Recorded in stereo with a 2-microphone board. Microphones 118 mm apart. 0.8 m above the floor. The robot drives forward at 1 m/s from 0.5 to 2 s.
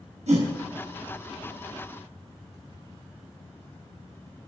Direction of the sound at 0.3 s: 80° right.